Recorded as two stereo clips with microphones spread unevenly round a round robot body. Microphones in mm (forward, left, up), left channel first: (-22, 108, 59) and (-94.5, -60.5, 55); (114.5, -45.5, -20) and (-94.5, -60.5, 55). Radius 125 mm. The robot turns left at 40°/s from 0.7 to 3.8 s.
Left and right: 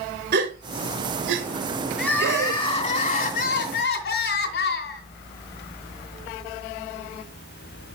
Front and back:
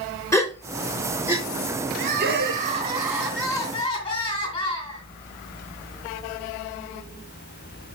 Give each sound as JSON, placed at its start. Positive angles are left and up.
{"t": 0.3, "sound": "a gasp", "azimuth_deg": -70, "distance_m": 1.7}
{"t": 2.0, "sound": "crying", "azimuth_deg": 155, "distance_m": 1.9}